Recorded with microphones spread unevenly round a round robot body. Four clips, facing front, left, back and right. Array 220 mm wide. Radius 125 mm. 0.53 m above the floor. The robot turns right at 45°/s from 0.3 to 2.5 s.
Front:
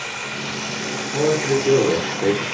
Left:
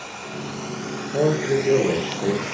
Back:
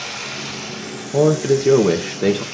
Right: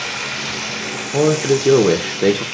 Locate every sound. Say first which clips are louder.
0.0 s running water: right 5 dB, front 1 dB; 75° right, 1.0 m; by 2.5 s 25° left, 1.0 m
1.1 s a man speaking: right 5 dB, back 4 dB; 150° right, 1.3 m; by 2.4 s 90° right, 1.3 m